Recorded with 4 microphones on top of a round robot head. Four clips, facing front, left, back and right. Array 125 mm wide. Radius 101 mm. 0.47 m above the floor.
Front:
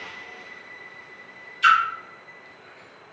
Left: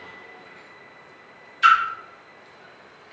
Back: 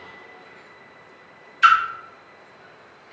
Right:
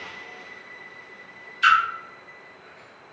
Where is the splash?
175° left, 1.1 m.